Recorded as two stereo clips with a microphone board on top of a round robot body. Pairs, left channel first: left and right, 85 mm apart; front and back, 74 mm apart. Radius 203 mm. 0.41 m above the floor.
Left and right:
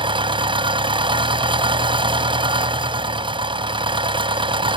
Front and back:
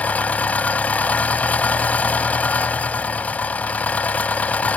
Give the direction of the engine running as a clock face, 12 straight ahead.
2 o'clock.